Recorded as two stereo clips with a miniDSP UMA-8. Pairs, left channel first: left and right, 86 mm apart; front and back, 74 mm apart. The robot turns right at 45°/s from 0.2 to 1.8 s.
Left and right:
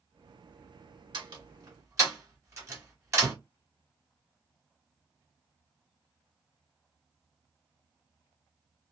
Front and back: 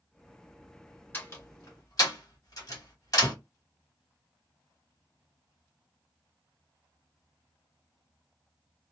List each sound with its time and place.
1.1 s a door slam: 65° right, 1.4 m; by 3.3 s 35° right, 1.4 m